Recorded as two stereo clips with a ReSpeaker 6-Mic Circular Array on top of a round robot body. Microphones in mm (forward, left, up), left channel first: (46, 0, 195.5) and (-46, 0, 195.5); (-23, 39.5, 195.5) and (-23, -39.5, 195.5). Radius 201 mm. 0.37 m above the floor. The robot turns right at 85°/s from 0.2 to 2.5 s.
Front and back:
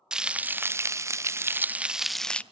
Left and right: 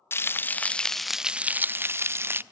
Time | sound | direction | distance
0.1 | frying | 105° left | 0.8 m